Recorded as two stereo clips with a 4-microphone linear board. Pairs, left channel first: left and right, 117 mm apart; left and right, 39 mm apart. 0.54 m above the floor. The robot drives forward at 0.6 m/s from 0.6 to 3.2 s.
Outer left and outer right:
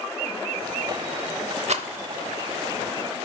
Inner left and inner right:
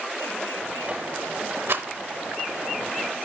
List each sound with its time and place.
1.7 s a rattle: 65° right (ahead or behind), 0.7 m; by 1.9 s 55° right (ahead or behind), 0.7 m